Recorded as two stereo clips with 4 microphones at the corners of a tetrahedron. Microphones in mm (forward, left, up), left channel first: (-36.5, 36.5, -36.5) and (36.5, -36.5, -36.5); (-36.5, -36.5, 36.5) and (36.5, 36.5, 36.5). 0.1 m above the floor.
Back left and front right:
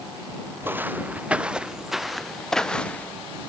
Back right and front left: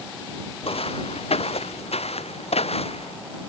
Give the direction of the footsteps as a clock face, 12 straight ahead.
4 o'clock.